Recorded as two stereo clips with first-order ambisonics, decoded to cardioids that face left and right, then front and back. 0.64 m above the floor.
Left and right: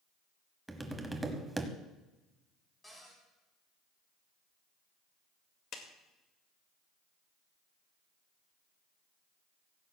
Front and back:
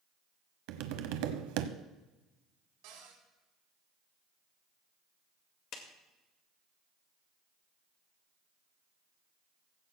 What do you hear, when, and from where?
0.7 s tapping: 170° right, 1.1 m
2.8 s a cupboard door: 170° left, 4 m
5.7 s a clap: 45° left, 2.0 m